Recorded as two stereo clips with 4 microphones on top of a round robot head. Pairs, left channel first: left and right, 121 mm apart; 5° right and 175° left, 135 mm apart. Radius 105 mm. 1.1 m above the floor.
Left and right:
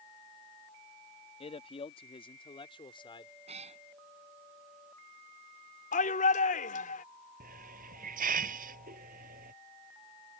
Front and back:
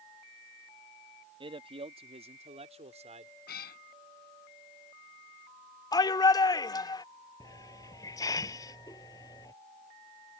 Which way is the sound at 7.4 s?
75° right.